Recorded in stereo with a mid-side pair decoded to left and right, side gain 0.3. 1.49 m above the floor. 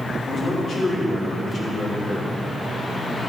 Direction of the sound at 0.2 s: 65° left.